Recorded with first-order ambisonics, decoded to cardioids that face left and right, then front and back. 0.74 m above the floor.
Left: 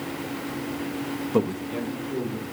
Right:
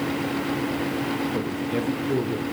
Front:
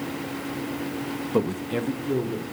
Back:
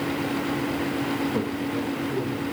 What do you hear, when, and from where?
1.3 s a man speaking: 55° left, 0.6 m; by 2.4 s 50° right, 1.6 m